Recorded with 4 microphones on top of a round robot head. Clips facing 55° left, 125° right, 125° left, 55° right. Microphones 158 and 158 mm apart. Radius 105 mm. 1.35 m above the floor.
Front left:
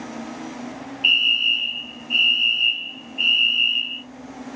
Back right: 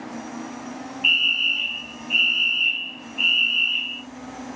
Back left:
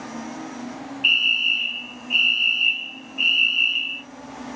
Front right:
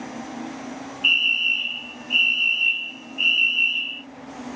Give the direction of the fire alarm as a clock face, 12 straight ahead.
10 o'clock.